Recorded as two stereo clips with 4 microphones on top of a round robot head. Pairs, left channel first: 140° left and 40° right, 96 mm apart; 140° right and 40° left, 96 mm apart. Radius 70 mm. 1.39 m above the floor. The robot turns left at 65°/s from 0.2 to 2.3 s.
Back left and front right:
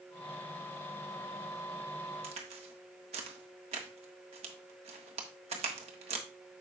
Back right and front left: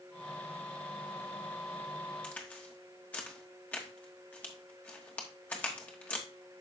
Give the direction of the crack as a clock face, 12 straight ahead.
2 o'clock.